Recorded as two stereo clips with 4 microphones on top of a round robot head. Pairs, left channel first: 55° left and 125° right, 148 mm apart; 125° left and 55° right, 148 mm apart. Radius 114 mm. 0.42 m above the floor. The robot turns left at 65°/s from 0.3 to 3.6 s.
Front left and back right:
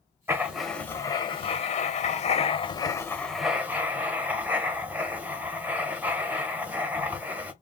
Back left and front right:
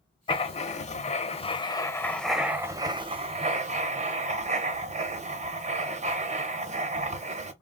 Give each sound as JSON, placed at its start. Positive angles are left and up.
{"t": 0.3, "sound": "writing", "azimuth_deg": 165, "distance_m": 0.9}